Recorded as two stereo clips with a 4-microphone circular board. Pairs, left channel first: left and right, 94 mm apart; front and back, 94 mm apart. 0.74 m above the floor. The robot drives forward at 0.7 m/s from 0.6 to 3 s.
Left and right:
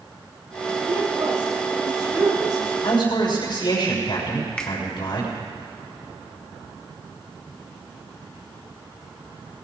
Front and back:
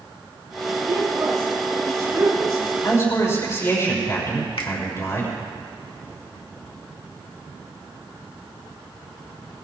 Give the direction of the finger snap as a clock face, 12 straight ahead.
12 o'clock.